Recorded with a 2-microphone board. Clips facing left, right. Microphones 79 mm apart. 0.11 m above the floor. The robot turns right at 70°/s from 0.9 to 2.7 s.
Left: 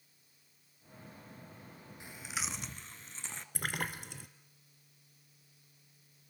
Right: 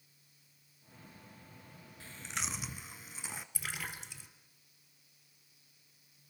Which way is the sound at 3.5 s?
55° left (ahead or behind).